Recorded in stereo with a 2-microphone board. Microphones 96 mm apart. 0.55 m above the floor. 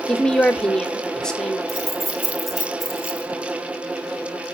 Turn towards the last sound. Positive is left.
turn(degrees=0)  # may be behind; listen again after turning